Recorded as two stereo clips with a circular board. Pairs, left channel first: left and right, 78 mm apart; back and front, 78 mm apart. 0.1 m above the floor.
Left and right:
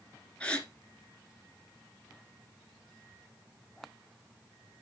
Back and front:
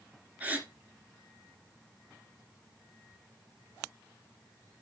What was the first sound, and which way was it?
A gasp, 35° left.